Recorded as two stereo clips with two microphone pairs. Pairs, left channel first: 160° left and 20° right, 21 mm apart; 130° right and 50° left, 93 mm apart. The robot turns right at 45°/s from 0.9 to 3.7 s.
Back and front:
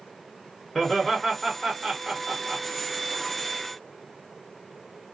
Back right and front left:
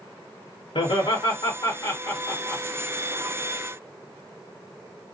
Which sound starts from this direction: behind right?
Laughter, at 0.8 s.